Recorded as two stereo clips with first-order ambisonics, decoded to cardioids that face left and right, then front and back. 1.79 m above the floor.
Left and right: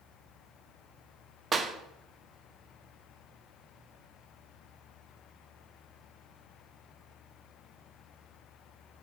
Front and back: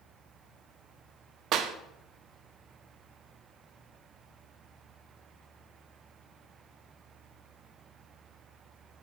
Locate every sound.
1.5 s a clap: 150° right, 0.5 m